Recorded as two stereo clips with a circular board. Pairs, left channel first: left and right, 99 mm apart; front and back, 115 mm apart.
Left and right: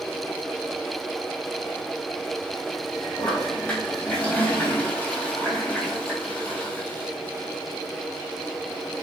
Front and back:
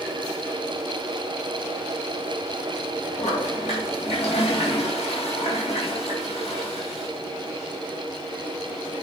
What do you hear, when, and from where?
3.2 s a toilet flushing: 15° left, 3 m